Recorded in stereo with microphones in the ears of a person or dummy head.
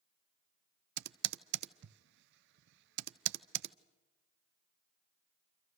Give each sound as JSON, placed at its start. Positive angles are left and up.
{"t": 1.0, "sound": "typing on a keyboard", "side_deg": -65, "distance_m": 0.7}